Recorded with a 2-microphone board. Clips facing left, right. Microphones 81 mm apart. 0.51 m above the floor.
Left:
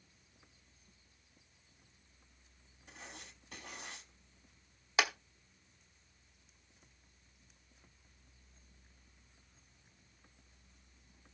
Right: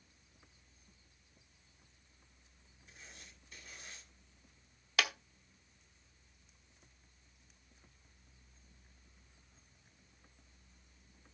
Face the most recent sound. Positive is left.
turn(degrees=25)  # may be behind; listen again after turning